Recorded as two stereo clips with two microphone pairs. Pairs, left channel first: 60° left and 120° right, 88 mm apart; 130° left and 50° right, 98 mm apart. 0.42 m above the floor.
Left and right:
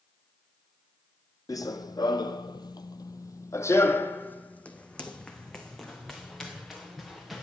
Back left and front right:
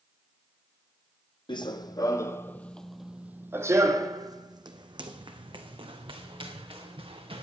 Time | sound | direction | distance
1.5 | running footsteps | 100° left | 0.9 m